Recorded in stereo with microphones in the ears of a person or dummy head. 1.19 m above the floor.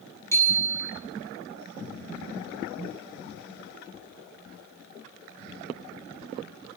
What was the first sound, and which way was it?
A bicycle bell, 15° left (ahead or behind).